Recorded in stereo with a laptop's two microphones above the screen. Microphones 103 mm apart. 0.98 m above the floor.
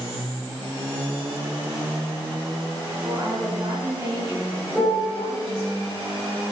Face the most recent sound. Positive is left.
turn(degrees=0)  # may be behind; listen again after turning